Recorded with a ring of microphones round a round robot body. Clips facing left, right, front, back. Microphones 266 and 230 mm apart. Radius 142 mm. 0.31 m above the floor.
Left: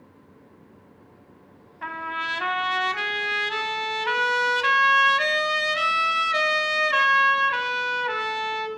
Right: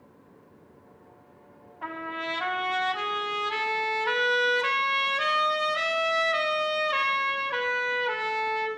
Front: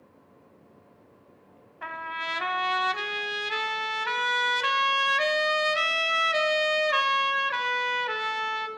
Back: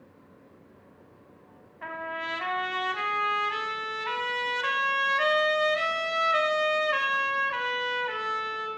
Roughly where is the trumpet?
Ahead left.